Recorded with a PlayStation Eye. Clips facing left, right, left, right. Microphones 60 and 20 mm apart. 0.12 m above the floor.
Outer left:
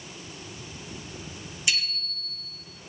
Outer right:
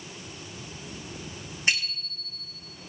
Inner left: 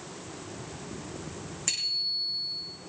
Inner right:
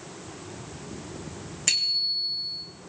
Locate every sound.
1.7 s a bicycle bell: 40° right (ahead or behind), 5 m